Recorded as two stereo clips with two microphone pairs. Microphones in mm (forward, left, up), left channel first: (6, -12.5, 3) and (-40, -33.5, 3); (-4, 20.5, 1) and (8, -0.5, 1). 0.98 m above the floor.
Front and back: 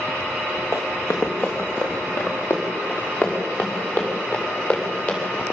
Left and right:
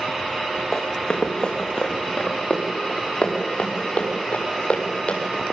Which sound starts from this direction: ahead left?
Running footsteps, at 0.7 s.